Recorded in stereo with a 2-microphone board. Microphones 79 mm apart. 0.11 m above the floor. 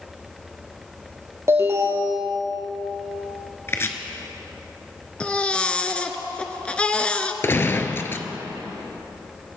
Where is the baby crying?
15° left (ahead or behind), 0.8 m.